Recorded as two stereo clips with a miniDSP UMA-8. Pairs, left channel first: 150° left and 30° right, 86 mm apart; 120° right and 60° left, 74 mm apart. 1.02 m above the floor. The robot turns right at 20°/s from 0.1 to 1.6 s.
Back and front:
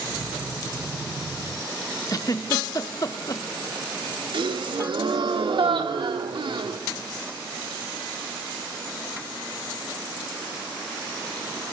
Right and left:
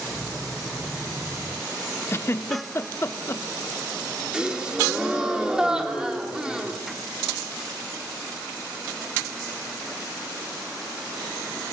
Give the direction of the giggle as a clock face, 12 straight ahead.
6 o'clock.